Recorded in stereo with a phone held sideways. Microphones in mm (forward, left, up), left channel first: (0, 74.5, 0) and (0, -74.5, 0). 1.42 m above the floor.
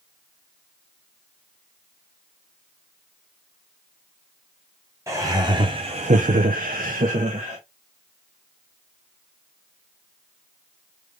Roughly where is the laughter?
Centre.